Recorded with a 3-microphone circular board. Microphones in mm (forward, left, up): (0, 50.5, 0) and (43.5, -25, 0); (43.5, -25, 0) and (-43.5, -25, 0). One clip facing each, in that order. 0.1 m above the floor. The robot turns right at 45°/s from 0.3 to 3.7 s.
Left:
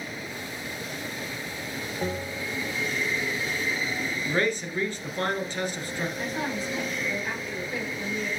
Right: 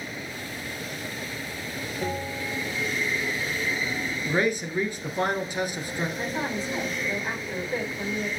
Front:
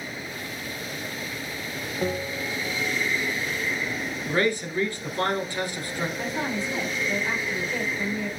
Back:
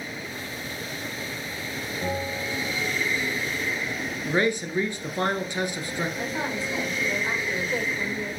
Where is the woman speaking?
120° right, 4 m.